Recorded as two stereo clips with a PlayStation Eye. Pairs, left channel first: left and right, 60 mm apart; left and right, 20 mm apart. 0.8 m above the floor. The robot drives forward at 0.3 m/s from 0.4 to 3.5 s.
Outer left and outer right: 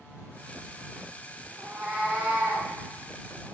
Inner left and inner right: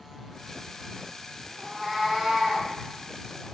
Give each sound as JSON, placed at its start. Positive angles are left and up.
{"t": 1.6, "sound": "a cat meowing", "side_deg": -25, "distance_m": 0.6}